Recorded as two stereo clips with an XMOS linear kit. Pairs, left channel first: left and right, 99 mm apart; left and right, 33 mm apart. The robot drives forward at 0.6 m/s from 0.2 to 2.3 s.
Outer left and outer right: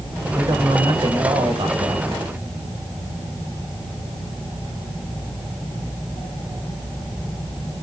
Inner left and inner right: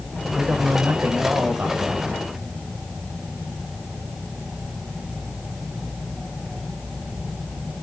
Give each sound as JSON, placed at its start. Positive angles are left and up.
{"t": 0.3, "sound": "a man speaking", "side_deg": -65, "distance_m": 2.5}